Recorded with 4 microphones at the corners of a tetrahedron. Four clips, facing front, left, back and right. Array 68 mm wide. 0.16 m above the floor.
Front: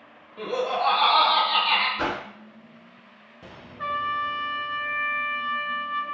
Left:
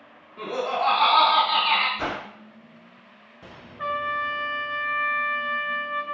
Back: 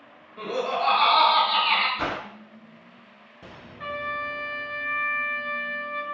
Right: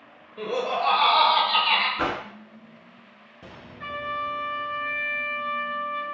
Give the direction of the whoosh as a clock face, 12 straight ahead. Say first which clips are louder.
Right 2 dB, front 1 dB; 2 o'clock.